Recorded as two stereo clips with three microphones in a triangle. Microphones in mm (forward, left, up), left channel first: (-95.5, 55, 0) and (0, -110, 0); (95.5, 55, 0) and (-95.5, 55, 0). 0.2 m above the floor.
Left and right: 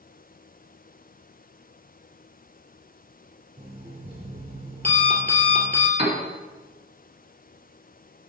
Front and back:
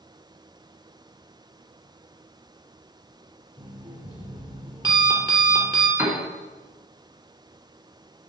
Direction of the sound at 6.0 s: 105° right.